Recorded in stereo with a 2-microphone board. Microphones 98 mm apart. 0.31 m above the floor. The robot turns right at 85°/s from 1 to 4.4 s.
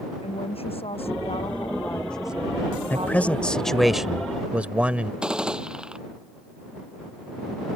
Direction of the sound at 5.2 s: 5° right (ahead or behind).